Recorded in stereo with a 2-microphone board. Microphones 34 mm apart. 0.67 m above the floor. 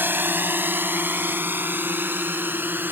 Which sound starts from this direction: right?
A drone, at 0.0 s.